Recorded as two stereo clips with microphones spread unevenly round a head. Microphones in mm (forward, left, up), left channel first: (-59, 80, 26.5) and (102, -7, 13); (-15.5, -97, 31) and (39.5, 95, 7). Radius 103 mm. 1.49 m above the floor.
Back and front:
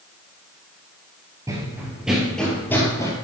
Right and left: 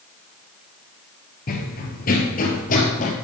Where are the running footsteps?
105° right, 2.0 m; by 3.1 s 140° right, 2 m.